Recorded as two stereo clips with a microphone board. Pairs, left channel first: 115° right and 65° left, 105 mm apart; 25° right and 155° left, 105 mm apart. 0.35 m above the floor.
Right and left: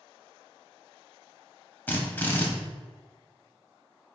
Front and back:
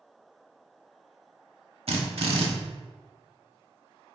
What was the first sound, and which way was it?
A drill, 175° left.